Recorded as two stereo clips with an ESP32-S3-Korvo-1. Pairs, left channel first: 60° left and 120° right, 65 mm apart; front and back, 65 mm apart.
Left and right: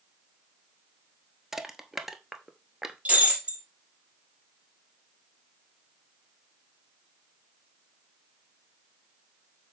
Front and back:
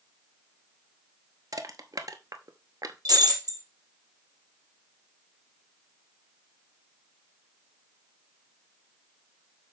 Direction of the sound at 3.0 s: 170° left.